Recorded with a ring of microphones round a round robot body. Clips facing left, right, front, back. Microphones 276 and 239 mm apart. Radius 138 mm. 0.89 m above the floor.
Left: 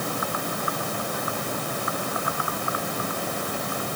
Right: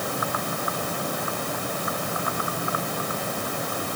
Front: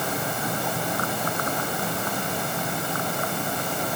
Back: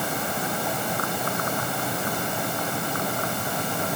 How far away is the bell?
I don't hear a bell.